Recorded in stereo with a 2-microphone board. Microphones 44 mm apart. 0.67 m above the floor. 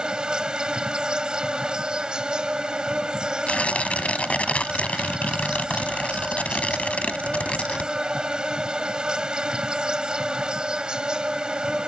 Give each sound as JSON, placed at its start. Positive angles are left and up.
{"t": 0.0, "sound": "an insect", "side_deg": -20}
{"t": 3.5, "sound": "tearing paper", "side_deg": 35}